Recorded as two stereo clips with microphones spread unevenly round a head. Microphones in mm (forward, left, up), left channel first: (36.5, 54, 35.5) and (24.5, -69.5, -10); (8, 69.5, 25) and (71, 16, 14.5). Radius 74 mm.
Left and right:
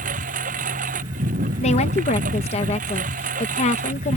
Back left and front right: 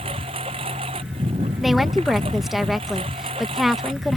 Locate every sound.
0.0 s a lawn mower: 80° right
1.6 s a woman speaking: 50° left